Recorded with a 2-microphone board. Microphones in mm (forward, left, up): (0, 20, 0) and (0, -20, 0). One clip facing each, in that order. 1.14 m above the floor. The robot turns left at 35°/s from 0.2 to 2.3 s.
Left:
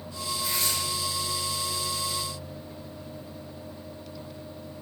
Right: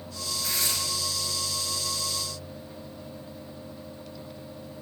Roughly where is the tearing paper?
Right.